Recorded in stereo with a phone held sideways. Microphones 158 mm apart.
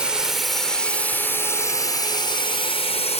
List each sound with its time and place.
0.0 s a drone: 5° right (ahead or behind); by 3.2 s 40° left (ahead or behind)